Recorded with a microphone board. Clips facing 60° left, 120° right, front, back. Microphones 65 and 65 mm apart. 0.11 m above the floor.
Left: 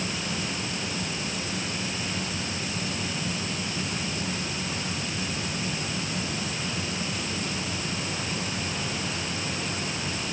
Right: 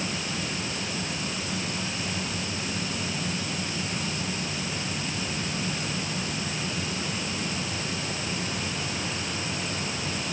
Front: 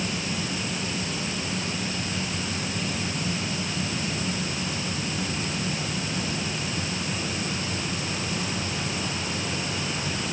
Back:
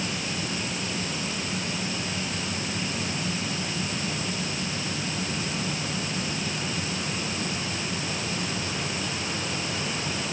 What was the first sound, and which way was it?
Only background noise.